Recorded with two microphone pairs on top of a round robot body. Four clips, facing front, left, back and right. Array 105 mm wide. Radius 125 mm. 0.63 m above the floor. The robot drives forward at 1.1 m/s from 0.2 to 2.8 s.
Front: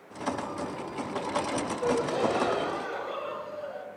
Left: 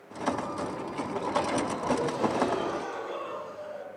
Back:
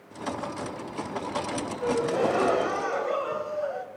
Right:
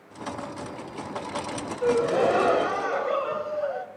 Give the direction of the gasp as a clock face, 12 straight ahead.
3 o'clock.